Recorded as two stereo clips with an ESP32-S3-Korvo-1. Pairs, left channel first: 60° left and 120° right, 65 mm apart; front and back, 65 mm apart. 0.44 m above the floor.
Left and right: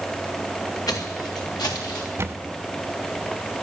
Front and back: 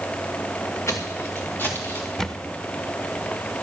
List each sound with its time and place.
0.9 s footsteps: 45° left, 2 m; by 2.1 s 60° left, 3.5 m
2.2 s a camera shutter: 80° right, 0.7 m